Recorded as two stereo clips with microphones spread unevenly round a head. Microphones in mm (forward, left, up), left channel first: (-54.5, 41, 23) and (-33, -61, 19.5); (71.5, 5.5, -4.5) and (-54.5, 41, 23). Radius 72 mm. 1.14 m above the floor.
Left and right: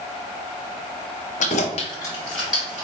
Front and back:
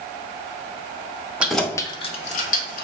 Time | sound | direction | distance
1.4 | keys jangling | 80° left | 0.8 m